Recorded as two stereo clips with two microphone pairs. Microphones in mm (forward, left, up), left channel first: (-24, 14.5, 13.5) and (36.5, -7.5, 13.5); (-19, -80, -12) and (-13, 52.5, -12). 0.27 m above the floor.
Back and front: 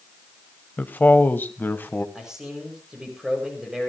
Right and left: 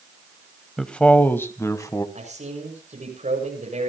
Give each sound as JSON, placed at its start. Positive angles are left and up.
{"t": 0.8, "sound": "a man speaking", "azimuth_deg": -170, "distance_m": 1.0}
{"t": 2.1, "sound": "a man speaking", "azimuth_deg": 60, "distance_m": 7.0}